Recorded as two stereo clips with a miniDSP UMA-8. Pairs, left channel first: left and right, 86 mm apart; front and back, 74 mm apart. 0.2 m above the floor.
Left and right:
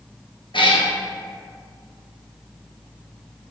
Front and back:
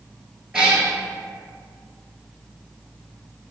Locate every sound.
0.5 s a cat meowing: 100° left, 0.9 m